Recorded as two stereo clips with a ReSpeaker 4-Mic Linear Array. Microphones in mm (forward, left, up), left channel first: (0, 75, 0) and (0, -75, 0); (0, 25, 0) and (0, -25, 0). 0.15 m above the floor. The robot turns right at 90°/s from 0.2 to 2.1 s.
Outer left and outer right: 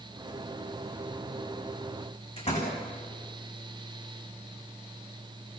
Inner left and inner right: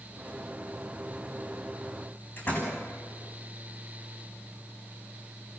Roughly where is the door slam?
Left.